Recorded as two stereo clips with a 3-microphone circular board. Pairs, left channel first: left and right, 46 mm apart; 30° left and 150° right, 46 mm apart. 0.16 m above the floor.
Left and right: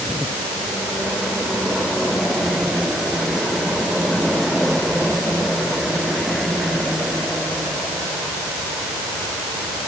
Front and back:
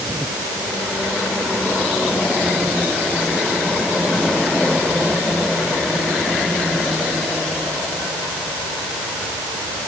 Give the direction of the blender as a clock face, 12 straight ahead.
No blender in this recording.